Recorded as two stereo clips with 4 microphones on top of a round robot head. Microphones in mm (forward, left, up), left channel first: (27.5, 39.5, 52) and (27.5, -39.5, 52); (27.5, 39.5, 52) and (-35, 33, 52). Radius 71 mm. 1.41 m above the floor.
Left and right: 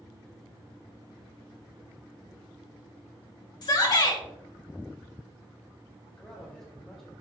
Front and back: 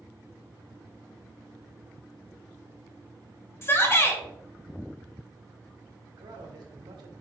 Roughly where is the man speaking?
Behind.